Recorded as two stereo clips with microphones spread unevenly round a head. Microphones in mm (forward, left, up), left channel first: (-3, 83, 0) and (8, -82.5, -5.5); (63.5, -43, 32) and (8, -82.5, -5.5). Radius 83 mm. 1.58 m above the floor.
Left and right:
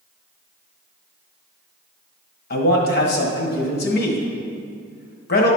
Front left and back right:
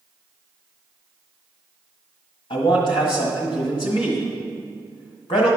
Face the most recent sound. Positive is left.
turn(degrees=60)